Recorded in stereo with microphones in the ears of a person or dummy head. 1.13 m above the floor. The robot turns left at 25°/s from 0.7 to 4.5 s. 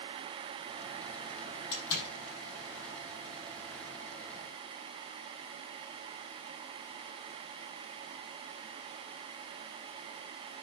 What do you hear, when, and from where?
1.7 s a door slam: 75° left (ahead or behind), 6 m; by 2.1 s 65° left (ahead or behind), 6 m